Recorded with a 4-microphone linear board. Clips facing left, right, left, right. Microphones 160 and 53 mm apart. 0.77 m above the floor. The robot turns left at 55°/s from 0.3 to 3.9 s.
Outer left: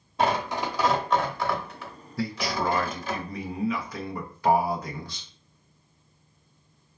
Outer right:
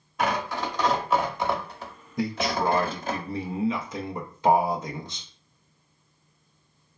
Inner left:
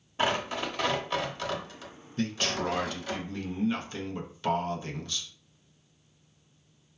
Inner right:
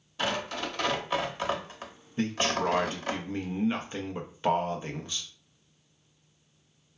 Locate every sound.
0.2 s tearing paper: 30° left (ahead or behind), 0.7 m; by 3.2 s 50° right (ahead or behind), 0.7 m
2.2 s a man speaking: 40° right, 0.5 m; by 5.3 s 135° right, 0.5 m